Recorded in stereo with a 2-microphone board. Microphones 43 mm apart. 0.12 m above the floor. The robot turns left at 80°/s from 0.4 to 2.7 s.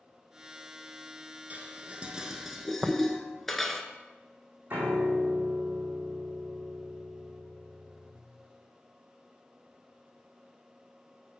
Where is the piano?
45° right (ahead or behind), 2.5 m.